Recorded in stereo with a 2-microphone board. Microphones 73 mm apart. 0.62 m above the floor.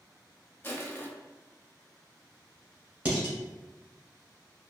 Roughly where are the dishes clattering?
Right.